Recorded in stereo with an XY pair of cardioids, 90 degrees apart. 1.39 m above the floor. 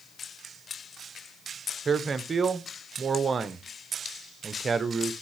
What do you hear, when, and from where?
1.9 s a man speaking: 40° right, 0.9 m